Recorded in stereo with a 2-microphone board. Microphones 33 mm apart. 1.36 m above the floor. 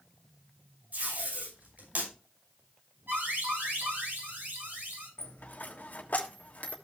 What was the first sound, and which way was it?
Tape being pulled, 55° right (ahead or behind).